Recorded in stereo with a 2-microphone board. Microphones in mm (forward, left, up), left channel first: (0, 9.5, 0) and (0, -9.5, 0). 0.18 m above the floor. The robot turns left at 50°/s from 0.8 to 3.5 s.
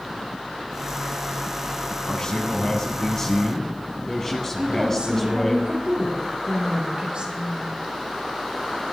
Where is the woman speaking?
55° right (ahead or behind), 5.5 m.